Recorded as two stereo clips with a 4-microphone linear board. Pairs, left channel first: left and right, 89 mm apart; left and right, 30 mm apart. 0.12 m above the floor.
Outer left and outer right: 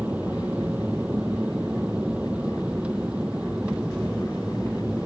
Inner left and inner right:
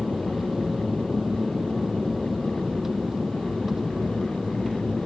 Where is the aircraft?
15° right (ahead or behind); by 5.1 s 10° right (ahead or behind).